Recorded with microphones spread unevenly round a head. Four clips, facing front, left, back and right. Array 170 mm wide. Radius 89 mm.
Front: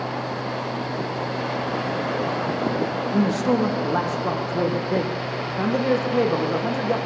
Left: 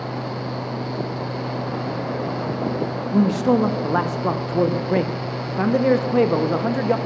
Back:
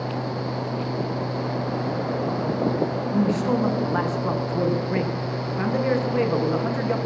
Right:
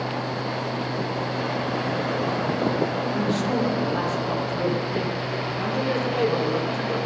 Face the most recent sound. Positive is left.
turn(degrees=60)